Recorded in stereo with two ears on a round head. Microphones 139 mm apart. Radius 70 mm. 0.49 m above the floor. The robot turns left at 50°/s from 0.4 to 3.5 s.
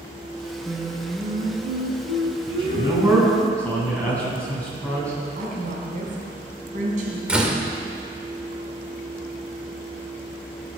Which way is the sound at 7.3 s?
5° right (ahead or behind).